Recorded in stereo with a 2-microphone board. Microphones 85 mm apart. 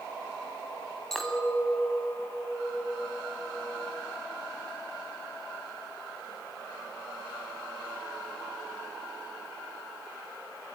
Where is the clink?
5° left (ahead or behind), 2.5 m.